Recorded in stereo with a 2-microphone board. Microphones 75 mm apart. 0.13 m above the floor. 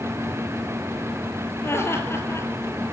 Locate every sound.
1.6 s laughter: 35° left (ahead or behind), 2.5 m